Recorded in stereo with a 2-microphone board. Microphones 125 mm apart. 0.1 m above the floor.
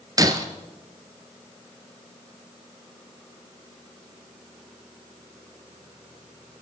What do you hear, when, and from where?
0.2 s breaking glass: 30° right (ahead or behind), 1.2 m